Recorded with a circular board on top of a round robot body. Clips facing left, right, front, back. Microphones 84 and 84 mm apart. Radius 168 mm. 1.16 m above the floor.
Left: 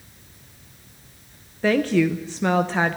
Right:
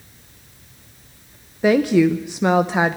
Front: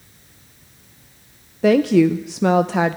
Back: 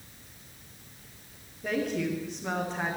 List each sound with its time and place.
1.6 s a woman speaking: 15° right, 0.7 m